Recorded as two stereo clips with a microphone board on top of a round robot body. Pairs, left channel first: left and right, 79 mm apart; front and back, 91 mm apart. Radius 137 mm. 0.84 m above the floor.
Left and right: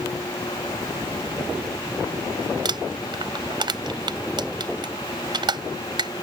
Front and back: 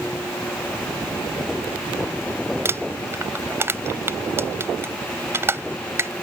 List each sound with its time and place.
2.6 s crumpling: 115° right